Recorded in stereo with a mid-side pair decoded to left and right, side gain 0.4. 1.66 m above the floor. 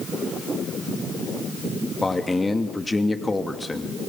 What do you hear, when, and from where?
2.0 s a man speaking: 20° left, 2.5 m